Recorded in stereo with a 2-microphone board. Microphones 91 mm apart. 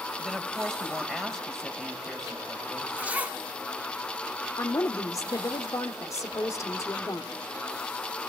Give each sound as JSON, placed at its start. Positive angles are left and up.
{"t": 0.2, "sound": "a woman speaking", "side_deg": 5, "distance_m": 2.5}
{"t": 3.0, "sound": "a zipper", "side_deg": -20, "distance_m": 1.1}
{"t": 4.6, "sound": "a woman speaking", "side_deg": 35, "distance_m": 1.4}